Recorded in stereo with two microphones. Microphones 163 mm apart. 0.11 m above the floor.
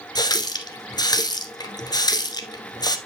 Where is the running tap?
25° left (ahead or behind), 1.0 m.